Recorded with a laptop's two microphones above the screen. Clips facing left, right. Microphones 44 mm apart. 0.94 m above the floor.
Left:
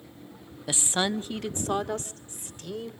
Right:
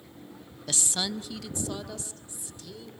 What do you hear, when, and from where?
0.7 s a woman speaking: 15° left (ahead or behind), 0.6 m; by 2.9 s 45° left (ahead or behind), 3 m